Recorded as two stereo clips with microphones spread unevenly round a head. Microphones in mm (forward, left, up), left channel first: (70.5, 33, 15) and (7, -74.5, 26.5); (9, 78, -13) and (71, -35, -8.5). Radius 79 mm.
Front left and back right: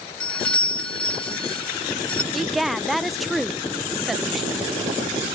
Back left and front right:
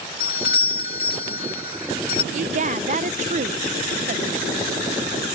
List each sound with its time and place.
0.2 s a doorbell: 140° left
2.3 s a woman speaking: 30° right